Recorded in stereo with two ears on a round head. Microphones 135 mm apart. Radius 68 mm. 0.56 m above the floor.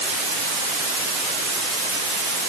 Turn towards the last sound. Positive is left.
No sound to turn to.